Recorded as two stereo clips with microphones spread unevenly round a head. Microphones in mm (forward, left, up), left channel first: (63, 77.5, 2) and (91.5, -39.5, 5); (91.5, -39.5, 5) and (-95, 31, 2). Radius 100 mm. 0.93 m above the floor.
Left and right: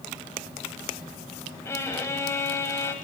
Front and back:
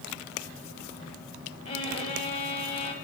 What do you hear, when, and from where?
1.6 s a violin: 40° left, 1.3 m